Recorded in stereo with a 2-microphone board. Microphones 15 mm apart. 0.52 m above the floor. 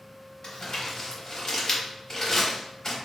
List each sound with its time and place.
0.4 s crumpling: 40° left (ahead or behind), 0.9 m